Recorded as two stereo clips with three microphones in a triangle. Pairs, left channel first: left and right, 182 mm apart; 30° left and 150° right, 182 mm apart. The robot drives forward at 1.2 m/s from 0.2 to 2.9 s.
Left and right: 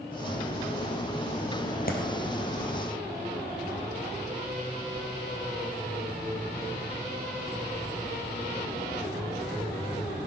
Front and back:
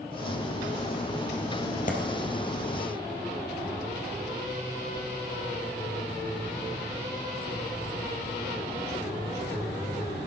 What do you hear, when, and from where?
1.9 s a clap: 65° left, 1.9 m; by 2.0 s 70° left, 1.9 m